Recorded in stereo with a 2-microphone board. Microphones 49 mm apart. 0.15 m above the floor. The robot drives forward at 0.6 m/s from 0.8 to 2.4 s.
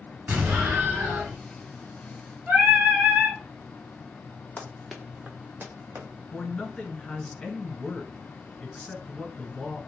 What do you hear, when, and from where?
0.3 s an explosion: 40° right (ahead or behind), 2 m
2.5 s singing: 35° right (ahead or behind), 1.9 m
4.6 s running footsteps: 25° left (ahead or behind), 0.9 m; by 6.1 s 60° right (ahead or behind), 1.6 m
6.3 s a man speaking: 25° left (ahead or behind), 1.2 m